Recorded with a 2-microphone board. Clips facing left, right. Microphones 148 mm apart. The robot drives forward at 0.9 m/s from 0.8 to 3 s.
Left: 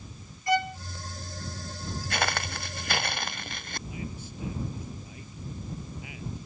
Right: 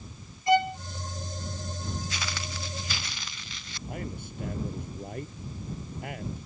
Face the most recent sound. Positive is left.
turn(degrees=-60)  # may be behind; listen again after turning